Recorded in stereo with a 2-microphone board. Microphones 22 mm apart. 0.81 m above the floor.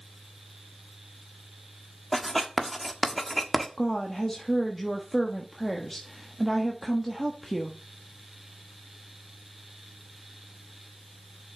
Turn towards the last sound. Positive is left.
turn(degrees=15)  # may be behind; listen again after turning